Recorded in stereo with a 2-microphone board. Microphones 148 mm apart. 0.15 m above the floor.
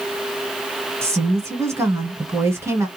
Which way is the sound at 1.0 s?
20° right (ahead or behind).